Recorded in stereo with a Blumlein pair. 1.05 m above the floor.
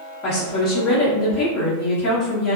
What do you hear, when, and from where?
0.2 s a woman speaking: 35° left, 1.2 m